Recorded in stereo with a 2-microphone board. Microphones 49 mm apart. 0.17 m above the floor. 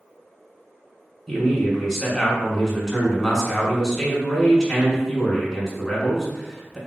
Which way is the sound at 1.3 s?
5° left (ahead or behind).